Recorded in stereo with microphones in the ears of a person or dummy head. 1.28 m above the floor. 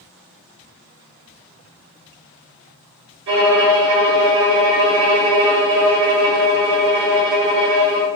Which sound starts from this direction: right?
A violin, at 3.3 s.